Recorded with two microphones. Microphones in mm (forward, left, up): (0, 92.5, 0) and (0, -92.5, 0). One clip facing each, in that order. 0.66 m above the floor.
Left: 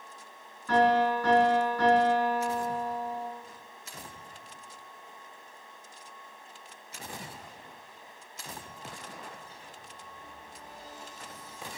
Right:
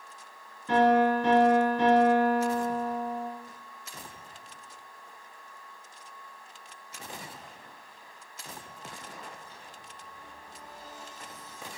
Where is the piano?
25° right (ahead or behind), 2.5 m.